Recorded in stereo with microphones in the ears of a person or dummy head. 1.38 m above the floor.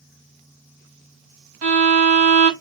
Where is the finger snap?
No finger snap in this recording.